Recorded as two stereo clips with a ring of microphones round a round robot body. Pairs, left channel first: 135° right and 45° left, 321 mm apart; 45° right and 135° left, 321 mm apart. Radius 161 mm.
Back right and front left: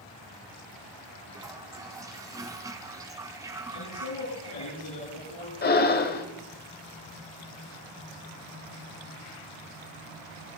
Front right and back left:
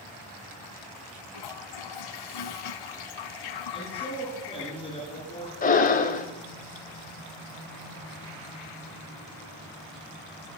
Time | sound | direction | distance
1.3 | a toilet flushing | 35° right | 1.1 m
3.7 | a man speaking | 120° right | 9.5 m
5.6 | breathing | 95° right | 1.2 m